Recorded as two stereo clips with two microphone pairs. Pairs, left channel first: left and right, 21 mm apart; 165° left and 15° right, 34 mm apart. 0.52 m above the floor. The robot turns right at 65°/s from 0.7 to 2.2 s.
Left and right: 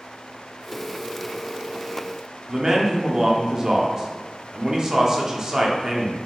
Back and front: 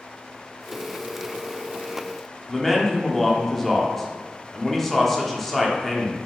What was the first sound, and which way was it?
A man speaking, 110° right.